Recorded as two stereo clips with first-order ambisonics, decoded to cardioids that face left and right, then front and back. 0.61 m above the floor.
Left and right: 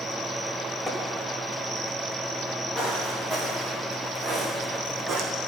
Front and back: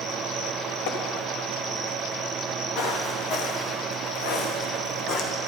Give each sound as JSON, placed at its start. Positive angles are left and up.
{"t": 0.9, "sound": "tapping", "azimuth_deg": 0, "distance_m": 1.3}
{"t": 2.8, "sound": "footsteps", "azimuth_deg": -10, "distance_m": 3.5}